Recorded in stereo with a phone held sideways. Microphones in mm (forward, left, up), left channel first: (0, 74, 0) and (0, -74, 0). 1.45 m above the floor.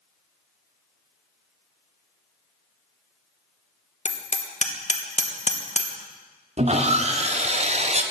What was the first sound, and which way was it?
Hammering, 50° left (ahead or behind).